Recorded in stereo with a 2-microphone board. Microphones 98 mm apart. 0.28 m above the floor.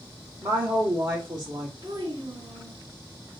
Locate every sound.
0.4 s a woman speaking: 45° right (ahead or behind), 2.0 m
1.8 s a child speaking: 60° right (ahead or behind), 2.5 m